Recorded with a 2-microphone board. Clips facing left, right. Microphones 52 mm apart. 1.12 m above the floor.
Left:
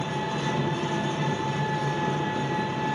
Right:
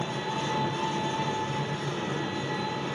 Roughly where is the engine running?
Left.